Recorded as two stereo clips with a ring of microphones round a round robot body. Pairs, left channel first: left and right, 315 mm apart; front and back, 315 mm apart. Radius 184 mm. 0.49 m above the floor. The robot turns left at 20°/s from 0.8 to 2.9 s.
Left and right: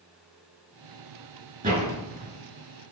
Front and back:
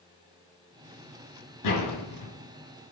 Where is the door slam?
25° right, 5 m; by 2.3 s 40° right, 5 m.